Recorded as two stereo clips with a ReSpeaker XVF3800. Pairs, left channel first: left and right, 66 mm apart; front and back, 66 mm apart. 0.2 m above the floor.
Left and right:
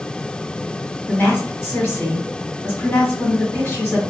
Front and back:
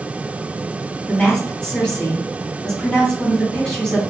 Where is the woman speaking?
70° left, 1.7 m.